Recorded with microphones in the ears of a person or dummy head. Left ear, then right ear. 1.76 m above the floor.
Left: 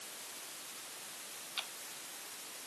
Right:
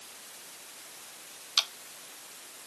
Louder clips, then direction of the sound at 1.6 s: Right 14 dB; 60° right (ahead or behind).